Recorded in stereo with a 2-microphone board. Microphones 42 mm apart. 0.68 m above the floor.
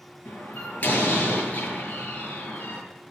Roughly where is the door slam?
Left.